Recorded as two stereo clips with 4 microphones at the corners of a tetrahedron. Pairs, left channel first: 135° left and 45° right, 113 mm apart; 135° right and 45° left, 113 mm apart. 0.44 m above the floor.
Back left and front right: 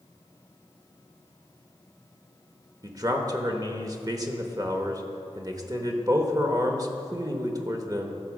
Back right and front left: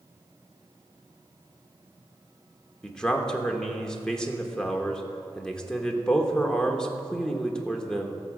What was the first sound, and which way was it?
A man speaking, 55° right.